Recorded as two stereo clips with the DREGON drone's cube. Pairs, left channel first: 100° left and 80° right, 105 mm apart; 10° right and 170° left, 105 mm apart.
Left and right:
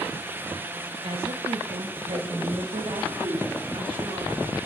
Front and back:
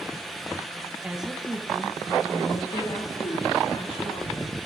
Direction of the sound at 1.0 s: 110° right.